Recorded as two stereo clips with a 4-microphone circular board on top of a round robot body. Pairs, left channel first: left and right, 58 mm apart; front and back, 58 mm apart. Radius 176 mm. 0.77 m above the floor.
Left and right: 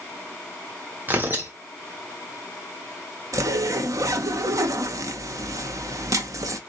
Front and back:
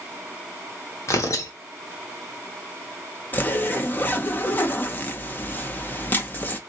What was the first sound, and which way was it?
Tearing paper, 30° right.